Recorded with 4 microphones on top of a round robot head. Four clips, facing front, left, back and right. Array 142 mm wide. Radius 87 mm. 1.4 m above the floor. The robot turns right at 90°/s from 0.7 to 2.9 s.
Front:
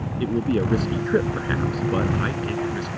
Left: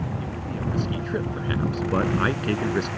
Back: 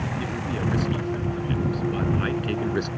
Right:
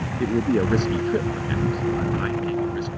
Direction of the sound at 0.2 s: 55° right.